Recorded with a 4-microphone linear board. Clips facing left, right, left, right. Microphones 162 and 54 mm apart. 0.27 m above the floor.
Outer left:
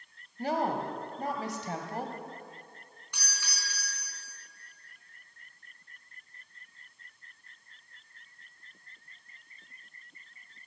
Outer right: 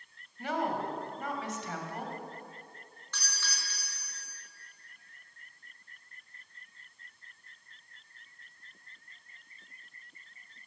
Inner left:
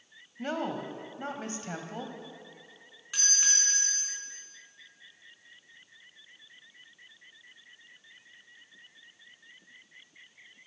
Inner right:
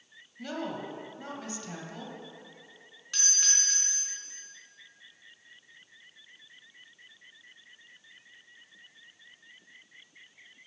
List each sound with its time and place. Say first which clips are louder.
0.4 s a woman speaking: outer left 2 dB, inner left 3 dB; 35° left (ahead or behind), 1.8 m
3.1 s a doorbell: outer right 1 dB, inner left 2 dB; 15° left (ahead or behind), 4 m